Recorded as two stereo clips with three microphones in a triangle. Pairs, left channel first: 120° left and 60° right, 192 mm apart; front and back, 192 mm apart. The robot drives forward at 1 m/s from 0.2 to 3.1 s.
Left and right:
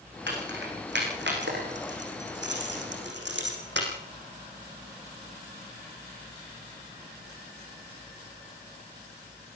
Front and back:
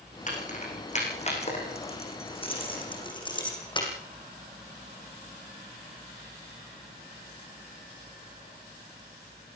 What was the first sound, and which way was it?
Keys jangling, 45° right.